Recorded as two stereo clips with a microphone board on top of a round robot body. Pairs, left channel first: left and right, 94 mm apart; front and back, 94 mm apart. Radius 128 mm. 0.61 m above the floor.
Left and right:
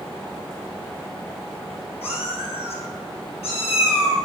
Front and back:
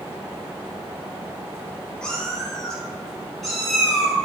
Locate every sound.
2.0 s a cat meowing: 80° left, 4 m; by 4.2 s 95° left, 5.5 m